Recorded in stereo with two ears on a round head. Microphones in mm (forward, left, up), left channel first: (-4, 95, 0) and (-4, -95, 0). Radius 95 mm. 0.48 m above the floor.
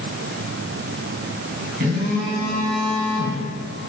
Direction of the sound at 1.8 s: 45° right (ahead or behind).